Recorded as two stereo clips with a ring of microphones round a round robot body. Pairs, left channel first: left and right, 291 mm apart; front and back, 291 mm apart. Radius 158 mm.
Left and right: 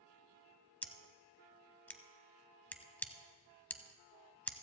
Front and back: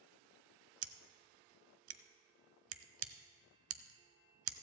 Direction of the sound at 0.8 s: 170° left.